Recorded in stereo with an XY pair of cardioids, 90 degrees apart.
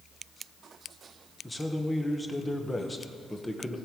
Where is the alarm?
No alarm in this recording.